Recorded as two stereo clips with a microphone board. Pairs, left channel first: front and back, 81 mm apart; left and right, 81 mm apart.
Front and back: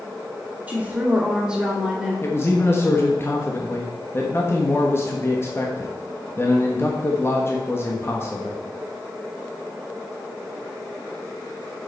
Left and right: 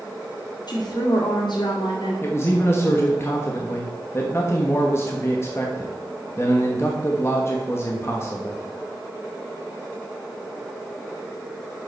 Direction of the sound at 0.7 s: 105° left.